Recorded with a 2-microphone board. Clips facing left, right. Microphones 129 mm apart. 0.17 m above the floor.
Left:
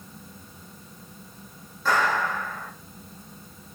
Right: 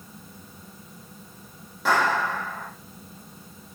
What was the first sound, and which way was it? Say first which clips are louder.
A clap: right 1 dB; 80° right.